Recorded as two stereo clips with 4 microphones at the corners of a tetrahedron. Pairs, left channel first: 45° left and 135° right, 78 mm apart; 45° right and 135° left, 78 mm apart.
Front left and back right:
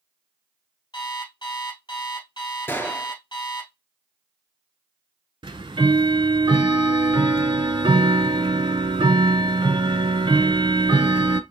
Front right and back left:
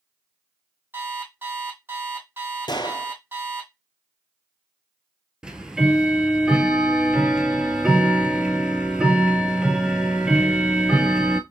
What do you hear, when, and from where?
0.9 s an alarm clock: 75° left, 3 m
2.7 s a gunshot: 20° right, 0.7 m
5.4 s ticking: 145° right, 0.5 m